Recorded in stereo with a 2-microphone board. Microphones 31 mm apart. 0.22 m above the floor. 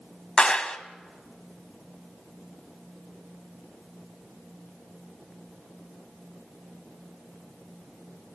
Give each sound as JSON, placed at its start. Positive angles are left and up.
{"t": 0.4, "sound": "a clap", "side_deg": 30, "distance_m": 0.9}